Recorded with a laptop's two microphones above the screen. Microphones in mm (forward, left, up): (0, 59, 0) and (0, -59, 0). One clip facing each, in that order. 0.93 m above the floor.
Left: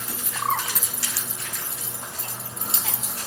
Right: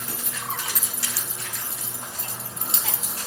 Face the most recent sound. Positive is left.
turn(degrees=65)  # may be behind; listen again after turning